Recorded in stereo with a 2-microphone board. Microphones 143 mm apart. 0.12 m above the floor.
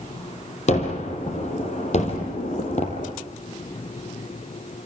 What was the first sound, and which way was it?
A gunshot, 50° left (ahead or behind).